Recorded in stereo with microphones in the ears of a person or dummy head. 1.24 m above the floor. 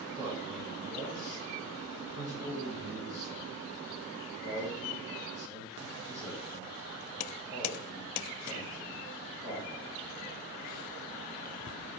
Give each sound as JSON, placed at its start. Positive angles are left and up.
{"t": 0.2, "sound": "a man speaking", "side_deg": -10, "distance_m": 1.3}